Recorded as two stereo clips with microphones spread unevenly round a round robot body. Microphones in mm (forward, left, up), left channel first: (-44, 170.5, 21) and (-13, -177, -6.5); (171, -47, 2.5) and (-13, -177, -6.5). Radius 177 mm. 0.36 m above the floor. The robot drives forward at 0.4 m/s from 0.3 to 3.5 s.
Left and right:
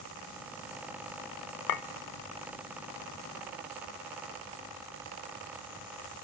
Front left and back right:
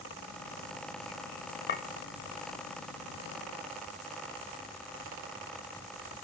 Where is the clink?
75° left, 0.7 m; by 1.8 s 85° left, 0.7 m.